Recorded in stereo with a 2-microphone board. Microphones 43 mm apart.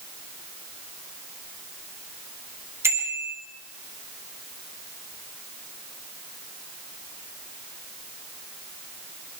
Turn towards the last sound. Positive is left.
turn(degrees=-75)  # may be behind; listen again after turning